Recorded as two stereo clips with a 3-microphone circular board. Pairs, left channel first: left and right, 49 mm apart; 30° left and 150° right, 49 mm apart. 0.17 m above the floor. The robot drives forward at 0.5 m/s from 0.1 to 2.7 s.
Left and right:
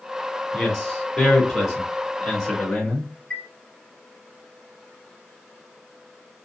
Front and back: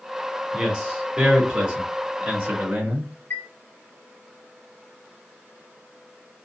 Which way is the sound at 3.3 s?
30° left.